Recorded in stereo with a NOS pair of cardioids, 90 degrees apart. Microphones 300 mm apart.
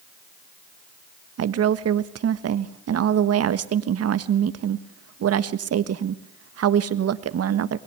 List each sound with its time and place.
1.4 s a woman speaking: 55° right, 1.6 m